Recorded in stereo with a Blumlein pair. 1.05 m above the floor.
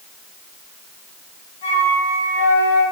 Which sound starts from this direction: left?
A flute, at 1.6 s.